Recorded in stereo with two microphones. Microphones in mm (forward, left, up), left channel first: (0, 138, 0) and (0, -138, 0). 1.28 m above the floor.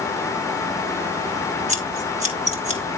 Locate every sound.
1.7 s scissors: 25° right (ahead or behind), 2.5 m